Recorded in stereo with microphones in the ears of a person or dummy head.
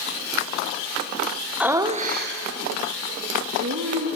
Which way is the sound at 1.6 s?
Centre (ahead or behind).